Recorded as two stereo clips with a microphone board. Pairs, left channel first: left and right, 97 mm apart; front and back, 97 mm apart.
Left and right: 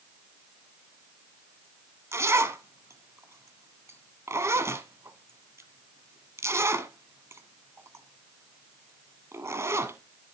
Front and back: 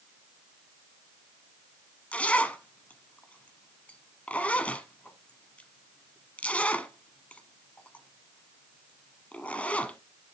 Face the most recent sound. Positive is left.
turn(degrees=-60)